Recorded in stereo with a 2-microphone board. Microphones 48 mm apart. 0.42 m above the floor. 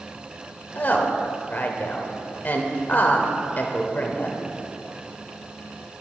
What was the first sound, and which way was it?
A woman speaking, 45° left (ahead or behind).